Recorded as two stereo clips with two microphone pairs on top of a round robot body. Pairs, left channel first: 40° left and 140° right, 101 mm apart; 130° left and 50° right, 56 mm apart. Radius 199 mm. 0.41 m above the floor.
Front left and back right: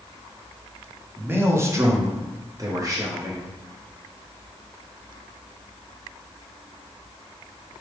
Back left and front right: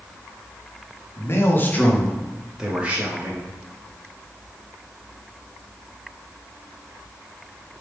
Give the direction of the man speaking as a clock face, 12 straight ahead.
7 o'clock.